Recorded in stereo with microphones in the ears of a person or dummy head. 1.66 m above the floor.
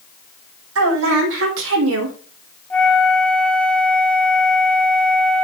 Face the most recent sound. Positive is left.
turn(degrees=10)  # may be behind; listen again after turning